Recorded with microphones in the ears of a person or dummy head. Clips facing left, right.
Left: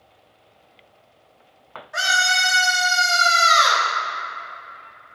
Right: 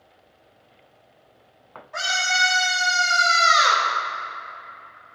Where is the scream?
15° left (ahead or behind), 3 m; by 3.9 s 30° right (ahead or behind), 2 m.